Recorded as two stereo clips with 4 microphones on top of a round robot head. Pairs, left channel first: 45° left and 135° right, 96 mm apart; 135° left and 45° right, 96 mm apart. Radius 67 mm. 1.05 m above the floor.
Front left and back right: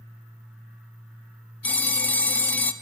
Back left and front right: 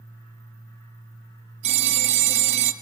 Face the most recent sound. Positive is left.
turn(degrees=-30)